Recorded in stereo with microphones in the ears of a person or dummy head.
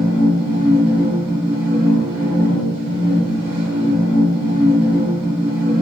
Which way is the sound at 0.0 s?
30° right (ahead or behind).